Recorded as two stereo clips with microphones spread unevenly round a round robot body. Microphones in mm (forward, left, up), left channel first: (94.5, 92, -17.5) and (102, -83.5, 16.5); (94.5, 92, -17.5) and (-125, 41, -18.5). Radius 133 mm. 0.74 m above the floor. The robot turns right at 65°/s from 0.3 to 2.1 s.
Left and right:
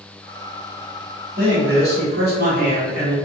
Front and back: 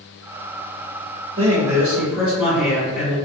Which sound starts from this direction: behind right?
A man speaking, at 1.4 s.